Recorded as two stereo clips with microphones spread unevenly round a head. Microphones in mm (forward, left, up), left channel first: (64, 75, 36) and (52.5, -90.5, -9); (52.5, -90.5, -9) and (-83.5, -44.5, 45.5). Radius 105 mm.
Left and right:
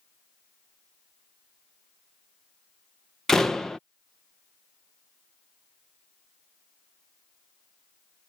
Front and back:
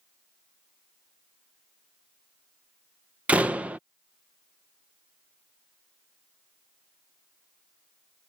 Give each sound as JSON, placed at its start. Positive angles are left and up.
{"t": 3.3, "sound": "a door slam", "azimuth_deg": 140}